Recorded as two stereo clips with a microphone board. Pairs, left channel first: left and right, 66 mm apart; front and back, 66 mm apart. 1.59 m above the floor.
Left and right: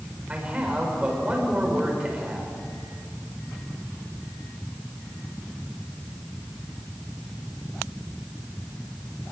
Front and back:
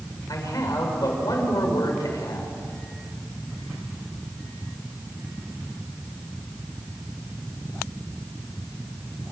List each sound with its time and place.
0.3 s a man speaking: 20° right, 6 m